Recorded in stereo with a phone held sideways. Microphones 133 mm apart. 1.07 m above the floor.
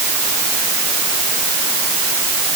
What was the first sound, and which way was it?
Only background noise.